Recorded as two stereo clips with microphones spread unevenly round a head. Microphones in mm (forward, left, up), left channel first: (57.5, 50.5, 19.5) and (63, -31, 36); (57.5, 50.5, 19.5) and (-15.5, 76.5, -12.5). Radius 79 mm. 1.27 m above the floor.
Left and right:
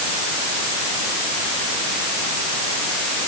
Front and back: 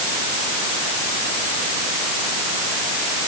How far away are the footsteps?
No footsteps in this recording.